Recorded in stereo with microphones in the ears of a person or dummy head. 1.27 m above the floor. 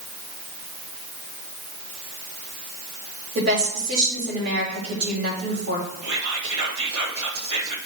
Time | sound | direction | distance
3.4 | a woman speaking | 80° right | 4 m
6.0 | whispering | 80° right | 2 m